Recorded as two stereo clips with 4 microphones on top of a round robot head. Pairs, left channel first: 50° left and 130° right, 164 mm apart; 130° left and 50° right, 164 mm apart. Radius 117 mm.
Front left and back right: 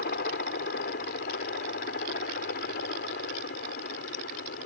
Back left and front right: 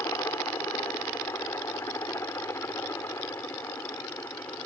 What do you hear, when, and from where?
0.0 s a helicopter: 60° left; by 4.7 s 55° left